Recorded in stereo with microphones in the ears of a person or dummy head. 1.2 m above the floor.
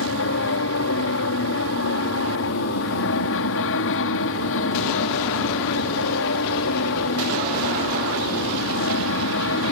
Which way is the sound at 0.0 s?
65° left (ahead or behind).